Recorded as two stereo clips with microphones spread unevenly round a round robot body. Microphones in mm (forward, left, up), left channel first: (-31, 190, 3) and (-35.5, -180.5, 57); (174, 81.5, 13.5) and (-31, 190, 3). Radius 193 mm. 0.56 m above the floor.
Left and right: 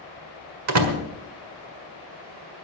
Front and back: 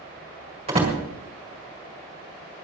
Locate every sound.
0.7 s a door slam: 135° right, 1.9 m